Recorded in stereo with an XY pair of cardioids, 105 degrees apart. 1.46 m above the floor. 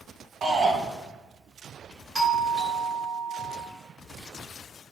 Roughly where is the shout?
Ahead right.